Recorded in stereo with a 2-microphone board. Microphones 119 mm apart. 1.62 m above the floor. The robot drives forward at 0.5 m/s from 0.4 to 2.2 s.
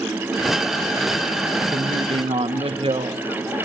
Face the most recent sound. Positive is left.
turn(degrees=-45)  # may be behind; listen again after turning